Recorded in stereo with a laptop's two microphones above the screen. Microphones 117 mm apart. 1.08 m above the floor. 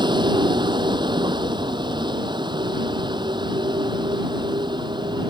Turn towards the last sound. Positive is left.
turn(degrees=-40)  # may be behind; listen again after turning